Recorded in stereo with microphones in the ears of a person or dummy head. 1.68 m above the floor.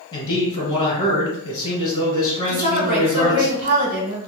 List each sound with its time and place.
0.1 s a man speaking: 25° left (ahead or behind), 1.6 m
2.5 s a woman speaking: 35° right (ahead or behind), 1.6 m